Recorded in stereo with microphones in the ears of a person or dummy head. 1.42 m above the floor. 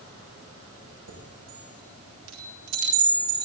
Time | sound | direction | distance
1.1 | a chime | 80° right | 7 m